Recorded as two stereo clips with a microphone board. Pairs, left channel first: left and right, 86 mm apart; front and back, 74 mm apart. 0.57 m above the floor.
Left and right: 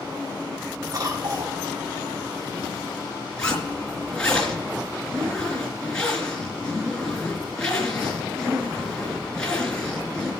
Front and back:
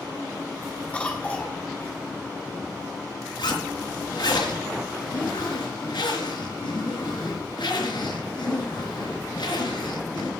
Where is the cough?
65° right, 1.0 m.